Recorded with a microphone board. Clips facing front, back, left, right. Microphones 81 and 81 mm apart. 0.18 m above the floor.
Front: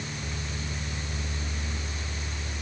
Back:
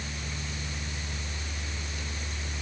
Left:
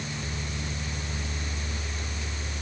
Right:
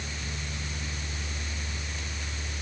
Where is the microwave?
No microwave in this recording.